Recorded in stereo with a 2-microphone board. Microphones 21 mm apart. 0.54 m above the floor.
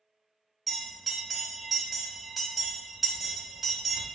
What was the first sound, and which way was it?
A bell, 5° right (ahead or behind).